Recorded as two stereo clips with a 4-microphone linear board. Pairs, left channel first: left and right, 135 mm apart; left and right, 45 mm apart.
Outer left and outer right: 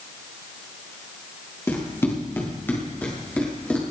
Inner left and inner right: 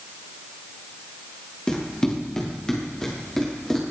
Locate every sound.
1.7 s running footsteps: 20° left (ahead or behind), 6.5 m; by 3.8 s 10° left (ahead or behind), 8 m